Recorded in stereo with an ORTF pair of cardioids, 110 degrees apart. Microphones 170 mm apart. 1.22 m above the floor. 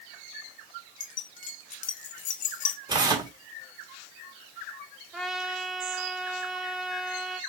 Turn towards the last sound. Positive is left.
turn(degrees=0)